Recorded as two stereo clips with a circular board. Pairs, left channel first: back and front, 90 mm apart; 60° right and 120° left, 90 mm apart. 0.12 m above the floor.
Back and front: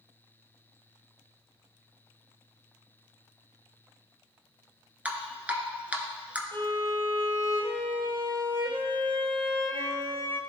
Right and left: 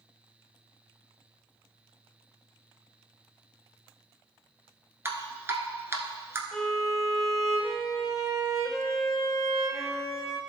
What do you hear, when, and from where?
5.0 s dripping: 70° left, 1.1 m
6.5 s a violin: 25° left, 1.5 m